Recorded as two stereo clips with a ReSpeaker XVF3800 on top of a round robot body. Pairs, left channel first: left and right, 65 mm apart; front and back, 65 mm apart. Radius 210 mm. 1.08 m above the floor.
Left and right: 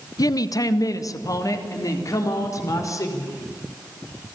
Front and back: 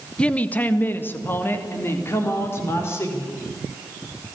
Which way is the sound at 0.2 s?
75° left.